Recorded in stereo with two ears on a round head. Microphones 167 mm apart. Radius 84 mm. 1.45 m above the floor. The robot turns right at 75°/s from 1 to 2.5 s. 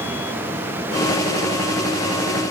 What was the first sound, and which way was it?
Only background noise.